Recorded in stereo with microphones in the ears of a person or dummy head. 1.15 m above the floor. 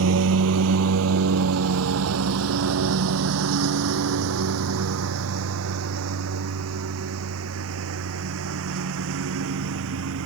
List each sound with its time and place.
0.0 s a lawn mower: 80° right